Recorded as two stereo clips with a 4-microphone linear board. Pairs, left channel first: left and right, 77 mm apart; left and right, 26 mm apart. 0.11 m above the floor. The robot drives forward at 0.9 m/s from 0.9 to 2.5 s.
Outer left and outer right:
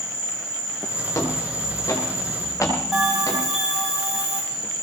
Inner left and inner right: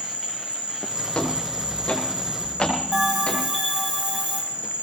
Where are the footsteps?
50° left (ahead or behind), 5 m; by 3.4 s 55° left (ahead or behind), 7 m.